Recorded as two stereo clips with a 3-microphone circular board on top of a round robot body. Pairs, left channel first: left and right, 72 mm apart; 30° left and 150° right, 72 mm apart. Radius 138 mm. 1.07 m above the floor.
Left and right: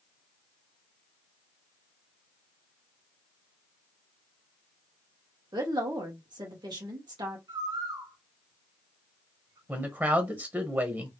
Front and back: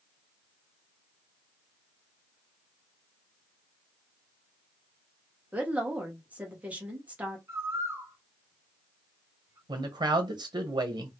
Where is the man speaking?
155° right, 1.1 m.